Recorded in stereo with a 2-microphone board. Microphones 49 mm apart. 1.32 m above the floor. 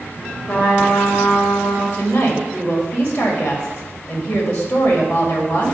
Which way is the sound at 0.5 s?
50° left (ahead or behind).